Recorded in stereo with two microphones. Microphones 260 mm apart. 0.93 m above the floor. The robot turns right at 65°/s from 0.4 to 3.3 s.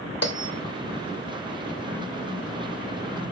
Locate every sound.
0.2 s a bell: 70° left (ahead or behind), 2 m; by 0.5 s 60° left (ahead or behind), 2 m